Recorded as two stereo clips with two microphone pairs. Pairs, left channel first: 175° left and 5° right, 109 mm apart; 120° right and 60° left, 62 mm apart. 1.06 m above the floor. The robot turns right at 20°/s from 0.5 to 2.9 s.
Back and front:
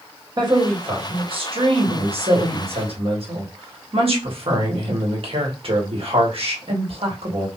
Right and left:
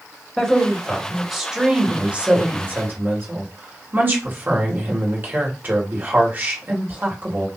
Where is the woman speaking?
45° right, 1.2 m; by 7.5 s 5° left, 1.2 m.